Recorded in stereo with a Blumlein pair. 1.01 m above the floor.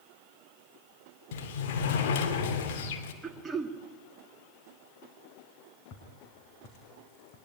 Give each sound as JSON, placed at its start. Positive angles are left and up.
{"t": 1.3, "sound": "a sliding door", "azimuth_deg": 55, "distance_m": 2.5}
{"t": 3.2, "sound": "throat clearing", "azimuth_deg": -15, "distance_m": 2.0}
{"t": 5.9, "sound": "footsteps", "azimuth_deg": 40, "distance_m": 4.5}